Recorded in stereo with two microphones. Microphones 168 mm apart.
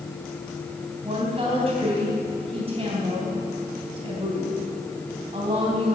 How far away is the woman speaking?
About 3 m.